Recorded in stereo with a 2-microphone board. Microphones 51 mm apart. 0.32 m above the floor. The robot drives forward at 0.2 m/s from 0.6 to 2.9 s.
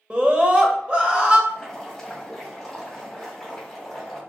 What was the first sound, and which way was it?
A scream, 25° right (ahead or behind).